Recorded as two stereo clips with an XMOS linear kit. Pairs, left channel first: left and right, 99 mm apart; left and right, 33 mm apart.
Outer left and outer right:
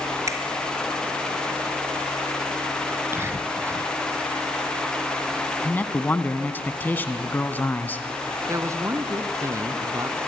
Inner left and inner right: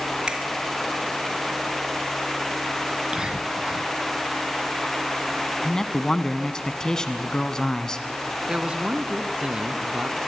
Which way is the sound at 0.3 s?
30° right (ahead or behind).